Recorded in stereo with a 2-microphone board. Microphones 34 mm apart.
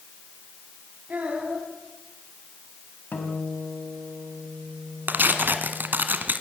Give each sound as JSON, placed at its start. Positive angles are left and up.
{"t": 1.1, "sound": "a child speaking", "side_deg": -45, "distance_m": 5.0}
{"t": 3.1, "sound": "a guitar", "side_deg": 70, "distance_m": 4.0}
{"t": 5.1, "sound": "tearing paper", "side_deg": -70, "distance_m": 1.6}